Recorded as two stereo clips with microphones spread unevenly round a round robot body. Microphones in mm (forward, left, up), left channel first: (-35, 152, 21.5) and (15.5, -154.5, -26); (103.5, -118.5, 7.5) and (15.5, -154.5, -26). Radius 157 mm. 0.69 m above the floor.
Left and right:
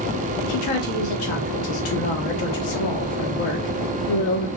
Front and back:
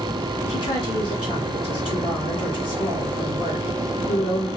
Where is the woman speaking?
85° left, 1.2 m.